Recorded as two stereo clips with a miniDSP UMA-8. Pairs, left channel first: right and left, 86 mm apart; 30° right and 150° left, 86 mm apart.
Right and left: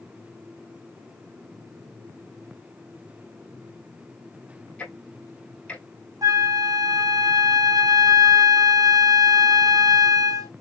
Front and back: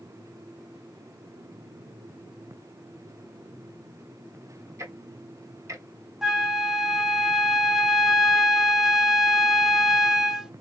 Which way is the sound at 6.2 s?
65° left.